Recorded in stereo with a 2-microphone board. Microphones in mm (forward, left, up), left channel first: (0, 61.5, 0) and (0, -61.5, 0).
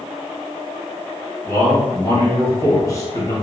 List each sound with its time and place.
1.4 s a man speaking: 30° left (ahead or behind), 1.3 m